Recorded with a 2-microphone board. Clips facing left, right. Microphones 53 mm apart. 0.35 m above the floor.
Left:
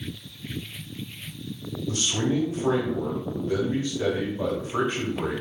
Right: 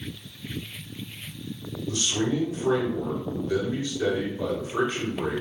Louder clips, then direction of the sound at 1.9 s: Left 1 dB; 35° left (ahead or behind).